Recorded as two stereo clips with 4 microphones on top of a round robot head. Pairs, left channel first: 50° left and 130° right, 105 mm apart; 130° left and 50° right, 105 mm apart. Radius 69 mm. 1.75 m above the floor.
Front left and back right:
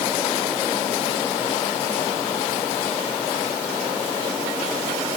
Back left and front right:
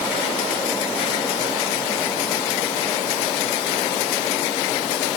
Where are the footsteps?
No footsteps in this recording.